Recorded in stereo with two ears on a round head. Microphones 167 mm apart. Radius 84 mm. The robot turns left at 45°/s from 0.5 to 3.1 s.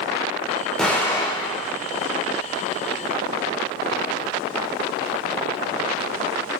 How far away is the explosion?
About 3 m.